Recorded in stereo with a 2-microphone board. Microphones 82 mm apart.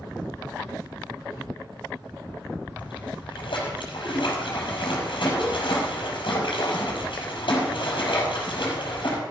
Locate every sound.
2.8 s a splash: 75° left (ahead or behind), 5.5 m